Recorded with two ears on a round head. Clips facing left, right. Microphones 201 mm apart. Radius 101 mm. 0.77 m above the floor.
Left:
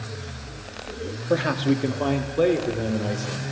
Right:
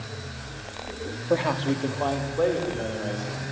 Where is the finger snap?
No finger snap in this recording.